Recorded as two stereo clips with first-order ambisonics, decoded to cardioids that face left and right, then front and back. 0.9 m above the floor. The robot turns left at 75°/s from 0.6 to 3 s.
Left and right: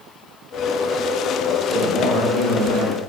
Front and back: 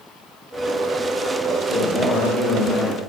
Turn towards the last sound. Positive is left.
turn(degrees=-50)